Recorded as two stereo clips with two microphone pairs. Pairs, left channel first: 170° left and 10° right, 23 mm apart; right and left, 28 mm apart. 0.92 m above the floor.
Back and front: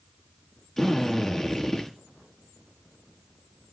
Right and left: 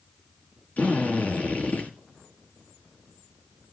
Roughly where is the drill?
Right.